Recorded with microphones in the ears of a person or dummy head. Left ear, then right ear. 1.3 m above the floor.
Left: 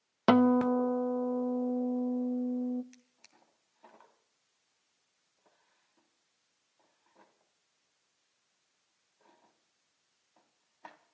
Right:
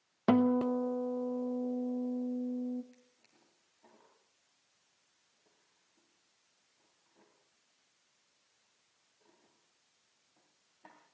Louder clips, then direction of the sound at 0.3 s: Left 4 dB; 45° left (ahead or behind).